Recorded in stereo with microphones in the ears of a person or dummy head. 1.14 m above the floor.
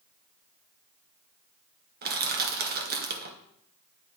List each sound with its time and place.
2.0 s crushing: 50° right (ahead or behind), 0.8 m